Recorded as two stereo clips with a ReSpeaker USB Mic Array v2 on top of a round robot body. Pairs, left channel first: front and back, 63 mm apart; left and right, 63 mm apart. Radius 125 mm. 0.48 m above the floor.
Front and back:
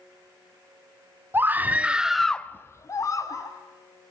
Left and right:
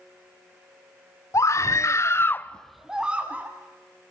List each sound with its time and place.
1.3 s a scream: 125° left, 1.6 m; by 3.5 s 25° right, 1.6 m